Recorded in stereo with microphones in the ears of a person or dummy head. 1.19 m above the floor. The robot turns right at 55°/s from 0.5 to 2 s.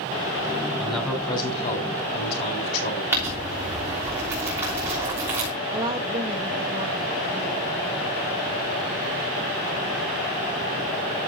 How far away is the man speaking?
About 3.5 m.